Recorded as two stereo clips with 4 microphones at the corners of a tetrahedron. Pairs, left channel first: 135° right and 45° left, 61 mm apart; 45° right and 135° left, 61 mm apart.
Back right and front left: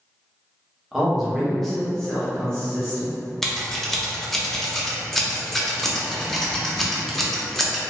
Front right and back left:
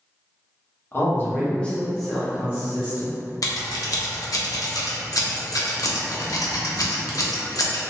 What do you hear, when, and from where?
0.9 s a man speaking: 40° right, 0.9 m; by 3.1 s 160° left, 0.9 m
3.4 s scissors: 50° right, 0.5 m